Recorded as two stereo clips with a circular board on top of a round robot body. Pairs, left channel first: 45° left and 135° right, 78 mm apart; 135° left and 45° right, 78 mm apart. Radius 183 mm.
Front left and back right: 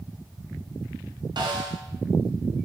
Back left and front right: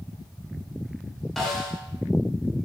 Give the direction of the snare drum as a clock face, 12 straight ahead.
5 o'clock.